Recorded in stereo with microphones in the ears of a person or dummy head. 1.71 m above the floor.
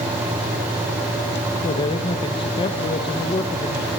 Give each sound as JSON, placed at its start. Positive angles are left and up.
{"t": 1.6, "sound": "a man speaking", "side_deg": 30, "distance_m": 1.5}